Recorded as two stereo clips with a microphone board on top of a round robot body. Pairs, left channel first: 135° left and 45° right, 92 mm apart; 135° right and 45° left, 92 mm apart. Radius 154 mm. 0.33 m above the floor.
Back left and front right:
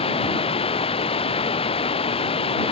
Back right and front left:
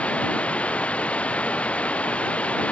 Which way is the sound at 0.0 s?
145° left.